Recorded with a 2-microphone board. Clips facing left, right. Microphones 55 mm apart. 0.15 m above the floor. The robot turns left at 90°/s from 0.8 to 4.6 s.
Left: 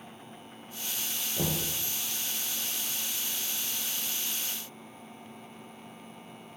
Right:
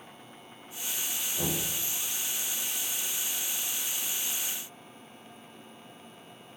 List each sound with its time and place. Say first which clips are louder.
1.4 s knocking: left 1 dB; 60° left (ahead or behind), 2 m; by 1.7 s 50° left (ahead or behind), 2 m